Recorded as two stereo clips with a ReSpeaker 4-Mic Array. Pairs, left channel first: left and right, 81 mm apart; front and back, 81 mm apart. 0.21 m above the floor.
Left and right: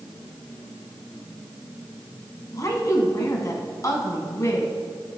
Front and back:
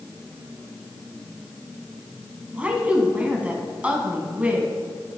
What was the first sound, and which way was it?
A woman speaking, 115° left.